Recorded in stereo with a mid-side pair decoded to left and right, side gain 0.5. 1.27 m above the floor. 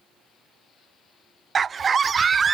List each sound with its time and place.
1.6 s a scream: 35° right, 0.6 m